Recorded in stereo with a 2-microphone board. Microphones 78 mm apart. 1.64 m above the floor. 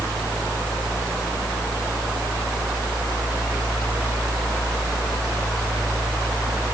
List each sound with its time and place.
Only background noise.